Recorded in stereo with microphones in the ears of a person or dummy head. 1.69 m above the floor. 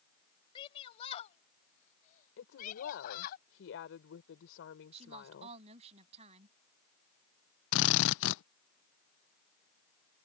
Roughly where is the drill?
Left.